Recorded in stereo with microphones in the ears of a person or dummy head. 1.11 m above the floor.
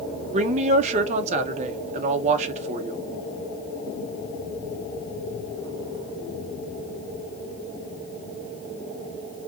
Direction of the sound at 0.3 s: 40° right (ahead or behind).